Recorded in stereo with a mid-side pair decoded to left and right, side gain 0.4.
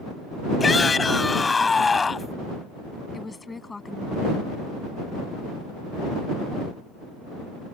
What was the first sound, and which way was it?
A shout, 30° left.